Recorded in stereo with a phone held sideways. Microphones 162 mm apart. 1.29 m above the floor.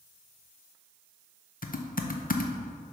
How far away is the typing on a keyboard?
About 0.6 m.